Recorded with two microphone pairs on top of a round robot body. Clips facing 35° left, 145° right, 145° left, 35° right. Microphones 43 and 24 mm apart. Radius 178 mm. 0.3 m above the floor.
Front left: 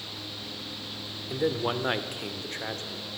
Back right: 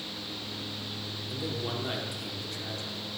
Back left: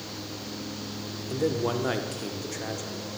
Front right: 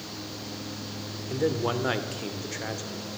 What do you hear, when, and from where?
1.3 s a man speaking: 20° left, 1.4 m